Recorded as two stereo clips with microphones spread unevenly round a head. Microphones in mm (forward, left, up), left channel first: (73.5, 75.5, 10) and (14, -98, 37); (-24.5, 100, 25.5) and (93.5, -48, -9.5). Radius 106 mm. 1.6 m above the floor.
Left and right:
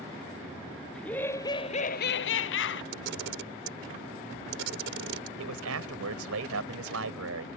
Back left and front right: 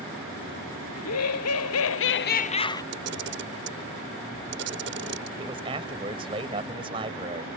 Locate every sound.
0.9 s laughter: 155° left; by 2.8 s 55° left
2.9 s a camera shutter: 90° right
5.4 s a man speaking: 120° right